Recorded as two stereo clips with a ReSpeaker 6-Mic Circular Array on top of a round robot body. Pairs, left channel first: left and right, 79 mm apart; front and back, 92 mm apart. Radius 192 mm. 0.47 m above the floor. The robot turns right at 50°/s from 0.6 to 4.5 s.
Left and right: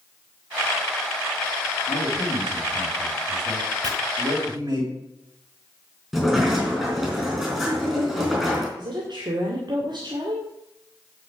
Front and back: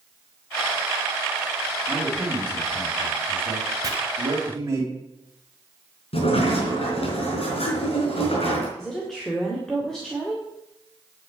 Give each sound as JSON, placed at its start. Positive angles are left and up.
{"t": 1.9, "sound": "a man speaking", "azimuth_deg": 105, "distance_m": 4.0}
{"t": 3.8, "sound": "chopping", "azimuth_deg": -130, "distance_m": 2.0}
{"t": 6.1, "sound": "a sliding door", "azimuth_deg": -5, "distance_m": 5.0}
{"t": 8.8, "sound": "a woman speaking", "azimuth_deg": -85, "distance_m": 2.5}